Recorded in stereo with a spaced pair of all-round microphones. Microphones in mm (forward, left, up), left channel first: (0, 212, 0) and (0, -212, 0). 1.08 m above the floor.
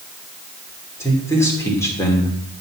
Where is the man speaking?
5° left (ahead or behind), 3 m.